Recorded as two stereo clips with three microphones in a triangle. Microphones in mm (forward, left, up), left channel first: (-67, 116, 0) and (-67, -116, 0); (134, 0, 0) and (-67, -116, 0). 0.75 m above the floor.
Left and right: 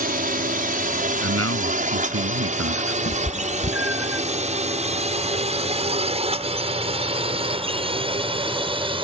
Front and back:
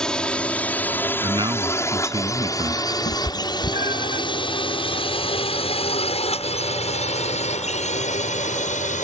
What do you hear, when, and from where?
0.0 s a drone: 55° right; by 9.0 s 25° right
1.2 s a man speaking: 80° right
3.0 s a cat meowing: 75° left